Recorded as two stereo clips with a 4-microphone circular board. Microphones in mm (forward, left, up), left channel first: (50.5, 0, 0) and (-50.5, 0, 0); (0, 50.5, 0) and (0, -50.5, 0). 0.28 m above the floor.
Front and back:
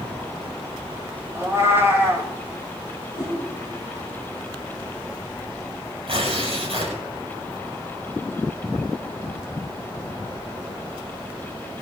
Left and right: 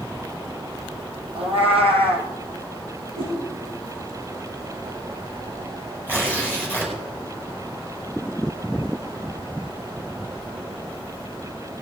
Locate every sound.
1.4 s a cat meowing: 110° right, 2.0 m
3.2 s a whoosh: 95° right, 7.5 m
6.1 s tearing paper: 160° right, 5 m